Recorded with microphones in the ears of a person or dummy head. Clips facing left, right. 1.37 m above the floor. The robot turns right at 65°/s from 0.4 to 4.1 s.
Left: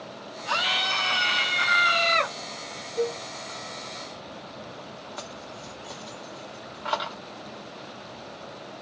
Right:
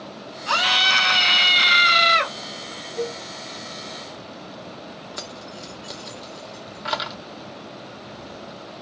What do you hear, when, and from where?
0.5 s a scream: 120° right, 1.1 m; by 2.4 s straight ahead, 1.1 m
3.0 s a cowbell: 5° left (ahead or behind), 0.7 m; by 3.2 s 15° left (ahead or behind), 0.7 m
5.2 s keys jangling: 35° right (ahead or behind), 0.6 m